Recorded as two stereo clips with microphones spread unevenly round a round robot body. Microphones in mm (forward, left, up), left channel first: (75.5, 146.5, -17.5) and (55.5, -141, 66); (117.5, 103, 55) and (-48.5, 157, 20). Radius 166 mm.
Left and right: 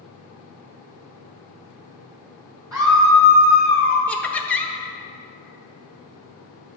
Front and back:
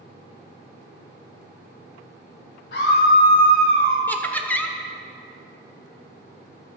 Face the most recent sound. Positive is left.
turn(degrees=80)